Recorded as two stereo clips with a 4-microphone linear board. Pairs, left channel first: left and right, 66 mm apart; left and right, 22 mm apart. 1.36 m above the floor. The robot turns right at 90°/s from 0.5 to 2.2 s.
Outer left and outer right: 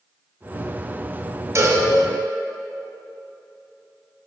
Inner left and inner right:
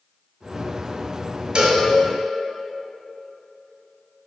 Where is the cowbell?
45° right (ahead or behind), 1.7 m; by 1.8 s 30° right (ahead or behind), 1.7 m.